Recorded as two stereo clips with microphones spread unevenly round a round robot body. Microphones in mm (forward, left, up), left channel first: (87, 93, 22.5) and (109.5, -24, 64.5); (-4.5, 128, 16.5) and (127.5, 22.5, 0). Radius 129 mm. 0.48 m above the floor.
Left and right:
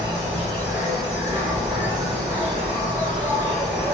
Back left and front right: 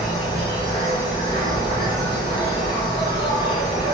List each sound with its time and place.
0.0 s an insect: 150° right, 1.3 m